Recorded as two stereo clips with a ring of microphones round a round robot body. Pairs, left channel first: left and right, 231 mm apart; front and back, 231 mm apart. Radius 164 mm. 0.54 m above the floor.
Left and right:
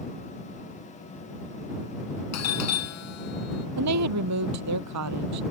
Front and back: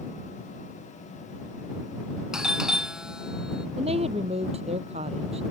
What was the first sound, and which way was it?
A doorbell, 95° left.